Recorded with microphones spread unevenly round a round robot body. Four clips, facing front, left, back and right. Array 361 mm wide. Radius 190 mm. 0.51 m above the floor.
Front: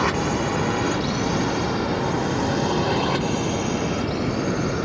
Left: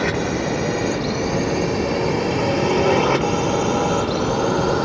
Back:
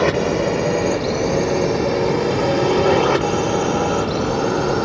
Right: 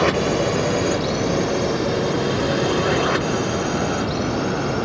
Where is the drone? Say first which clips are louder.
Right 3 dB, back 5 dB; 160° right; by 4.9 s 150° left.